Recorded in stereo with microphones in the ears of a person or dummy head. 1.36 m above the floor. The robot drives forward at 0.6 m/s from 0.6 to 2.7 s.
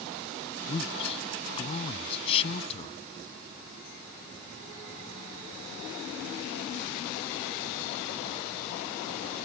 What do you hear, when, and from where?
0.7 s a man speaking: 30° left (ahead or behind); by 3.0 s 35° left (ahead or behind)